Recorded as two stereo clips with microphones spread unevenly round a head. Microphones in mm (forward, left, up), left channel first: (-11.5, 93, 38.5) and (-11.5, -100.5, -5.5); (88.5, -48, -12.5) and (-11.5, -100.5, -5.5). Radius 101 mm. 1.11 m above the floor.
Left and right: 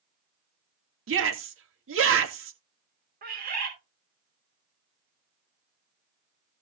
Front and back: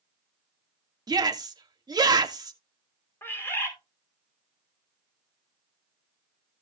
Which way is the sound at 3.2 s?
45° right.